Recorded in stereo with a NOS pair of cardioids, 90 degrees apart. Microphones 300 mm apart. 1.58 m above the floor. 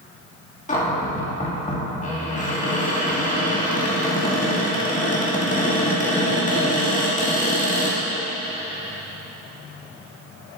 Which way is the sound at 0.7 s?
25° left.